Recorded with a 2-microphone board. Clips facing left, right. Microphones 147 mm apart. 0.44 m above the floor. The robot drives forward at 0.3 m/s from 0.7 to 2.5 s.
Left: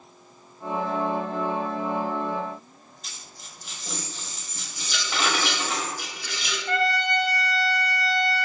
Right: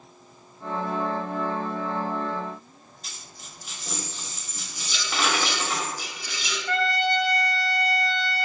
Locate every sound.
3.0 s a dropped coin: centre (ahead or behind), 0.6 m
4.9 s a rattle: 70° left (ahead or behind), 0.8 m
6.7 s a trumpet: 45° left (ahead or behind), 0.6 m